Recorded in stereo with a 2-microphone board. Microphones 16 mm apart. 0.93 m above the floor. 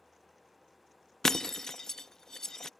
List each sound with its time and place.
1.2 s breaking glass: 30° left (ahead or behind)